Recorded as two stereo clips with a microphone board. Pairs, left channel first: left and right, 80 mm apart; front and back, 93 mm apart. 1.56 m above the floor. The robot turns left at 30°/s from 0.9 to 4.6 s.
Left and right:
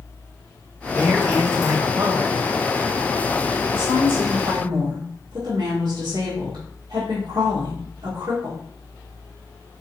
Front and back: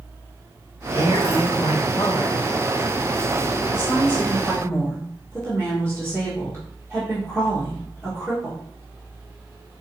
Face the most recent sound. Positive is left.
turn(degrees=-70)